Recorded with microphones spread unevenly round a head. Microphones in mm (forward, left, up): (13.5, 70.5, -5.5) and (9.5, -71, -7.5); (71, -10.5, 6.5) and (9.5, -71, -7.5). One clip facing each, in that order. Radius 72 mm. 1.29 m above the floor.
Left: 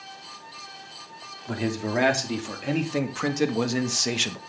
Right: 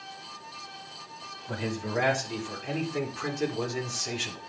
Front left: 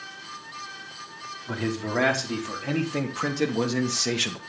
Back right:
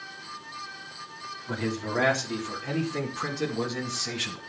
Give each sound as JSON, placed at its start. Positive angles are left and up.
{"t": 1.5, "sound": "a man speaking", "azimuth_deg": 115, "distance_m": 3.5}